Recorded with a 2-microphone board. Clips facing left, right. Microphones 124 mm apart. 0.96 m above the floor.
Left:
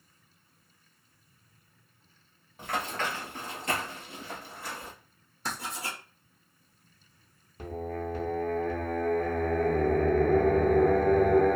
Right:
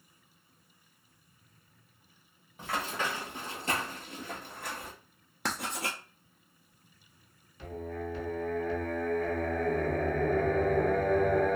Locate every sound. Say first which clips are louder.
2.6 s running footsteps: left 1 dB; centre (ahead or behind), 1.5 m; by 4.9 s 60° right (ahead or behind), 1.7 m
5.5 s writing: right 2 dB; 70° right (ahead or behind), 0.6 m
7.6 s singing: left 3 dB; 45° left (ahead or behind), 0.8 m